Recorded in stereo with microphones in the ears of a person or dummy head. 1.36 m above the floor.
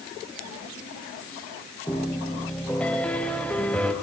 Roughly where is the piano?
Centre.